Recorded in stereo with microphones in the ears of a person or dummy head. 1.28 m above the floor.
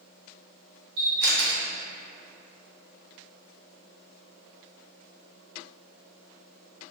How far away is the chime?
I don't hear a chime.